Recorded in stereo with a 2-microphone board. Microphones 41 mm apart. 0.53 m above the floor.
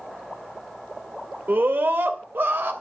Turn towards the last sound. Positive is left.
turn(degrees=-60)  # may be behind; listen again after turning